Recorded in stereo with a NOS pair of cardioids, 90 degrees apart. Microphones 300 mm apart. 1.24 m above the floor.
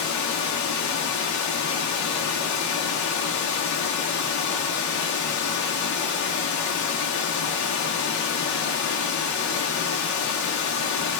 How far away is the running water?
About 0.9 m.